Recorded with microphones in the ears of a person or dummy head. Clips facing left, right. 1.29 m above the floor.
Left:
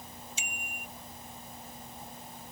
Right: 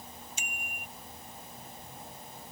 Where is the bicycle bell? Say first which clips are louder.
Left 1 dB; 45° right (ahead or behind).